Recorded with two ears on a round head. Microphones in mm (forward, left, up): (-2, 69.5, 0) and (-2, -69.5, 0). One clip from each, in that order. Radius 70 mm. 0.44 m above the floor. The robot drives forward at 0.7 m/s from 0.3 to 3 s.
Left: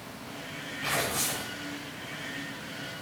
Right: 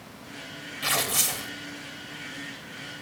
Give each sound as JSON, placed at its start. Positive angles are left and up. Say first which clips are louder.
{"t": 0.8, "sound": "tearing paper", "louder": "right 4 dB", "side_deg": -70, "distance_m": 1.0}